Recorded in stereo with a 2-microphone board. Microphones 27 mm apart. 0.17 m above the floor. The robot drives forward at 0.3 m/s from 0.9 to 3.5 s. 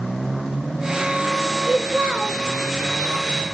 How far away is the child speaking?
About 2 m.